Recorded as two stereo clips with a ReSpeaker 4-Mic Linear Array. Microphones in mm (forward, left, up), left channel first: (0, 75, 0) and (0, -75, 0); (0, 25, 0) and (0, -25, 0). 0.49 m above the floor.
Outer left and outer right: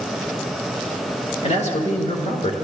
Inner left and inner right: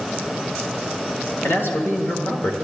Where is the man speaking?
50° left (ahead or behind), 1.8 m.